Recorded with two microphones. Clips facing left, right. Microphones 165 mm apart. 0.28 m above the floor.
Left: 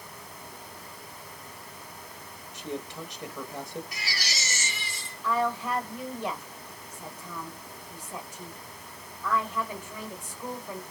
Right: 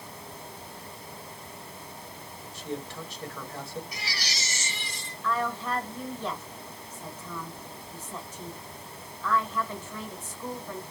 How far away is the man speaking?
About 0.9 m.